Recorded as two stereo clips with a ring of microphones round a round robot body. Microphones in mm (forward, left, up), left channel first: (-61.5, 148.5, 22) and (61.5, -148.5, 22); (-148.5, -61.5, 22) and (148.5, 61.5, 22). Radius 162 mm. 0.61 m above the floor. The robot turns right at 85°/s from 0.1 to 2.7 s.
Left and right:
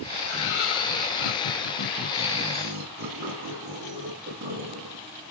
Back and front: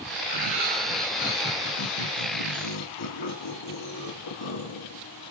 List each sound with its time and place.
0.2 s laughter: 20° left, 3 m; by 5.0 s 125° right, 3 m